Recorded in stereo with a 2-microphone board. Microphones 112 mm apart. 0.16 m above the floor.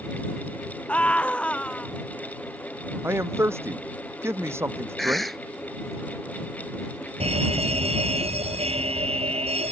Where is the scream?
10° left (ahead or behind).